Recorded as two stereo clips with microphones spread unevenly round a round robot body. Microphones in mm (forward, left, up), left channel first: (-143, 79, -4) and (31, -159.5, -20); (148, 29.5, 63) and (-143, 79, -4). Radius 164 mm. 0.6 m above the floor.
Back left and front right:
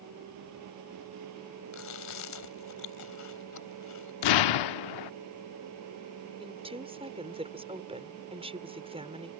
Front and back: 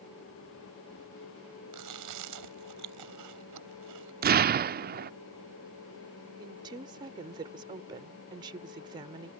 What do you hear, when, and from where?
1.7 s chewing: 155° left
4.2 s an explosion: 115° left
6.4 s a woman speaking: 120° right